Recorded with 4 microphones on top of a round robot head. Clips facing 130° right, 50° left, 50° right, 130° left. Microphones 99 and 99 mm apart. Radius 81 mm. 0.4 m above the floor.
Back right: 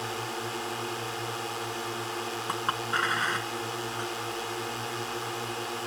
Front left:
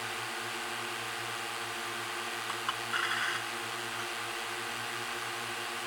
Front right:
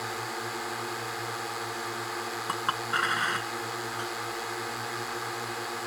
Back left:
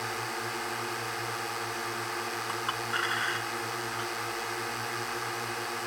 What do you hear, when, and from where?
0.0 s a drone: 130° right
2.5 s a clink: 90° right